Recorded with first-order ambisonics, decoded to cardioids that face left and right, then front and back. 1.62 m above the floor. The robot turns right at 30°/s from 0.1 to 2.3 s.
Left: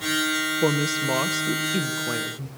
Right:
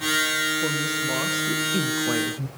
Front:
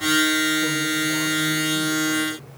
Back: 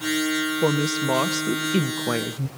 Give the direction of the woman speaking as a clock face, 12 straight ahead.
7 o'clock.